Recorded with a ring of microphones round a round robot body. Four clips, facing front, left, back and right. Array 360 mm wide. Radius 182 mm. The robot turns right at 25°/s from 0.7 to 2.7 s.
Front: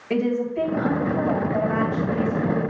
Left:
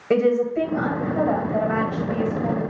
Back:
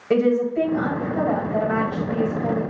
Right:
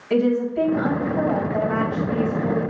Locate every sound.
0.1 s a woman speaking: 110° left, 2.5 m; by 2.6 s 160° left, 2.5 m